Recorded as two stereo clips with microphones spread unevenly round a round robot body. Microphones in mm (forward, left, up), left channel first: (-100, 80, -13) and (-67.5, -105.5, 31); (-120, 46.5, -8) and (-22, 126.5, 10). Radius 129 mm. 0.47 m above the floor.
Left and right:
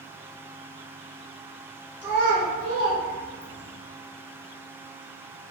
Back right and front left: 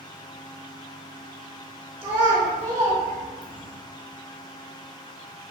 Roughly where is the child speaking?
Ahead.